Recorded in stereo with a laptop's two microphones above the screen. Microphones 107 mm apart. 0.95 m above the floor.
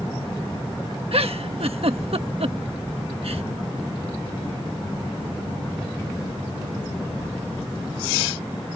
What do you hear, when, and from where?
1.1 s a giggle: 65° right (ahead or behind)